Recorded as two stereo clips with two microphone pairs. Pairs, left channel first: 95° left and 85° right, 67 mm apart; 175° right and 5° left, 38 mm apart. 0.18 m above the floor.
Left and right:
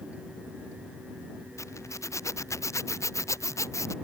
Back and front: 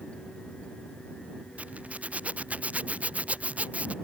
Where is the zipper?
55° left.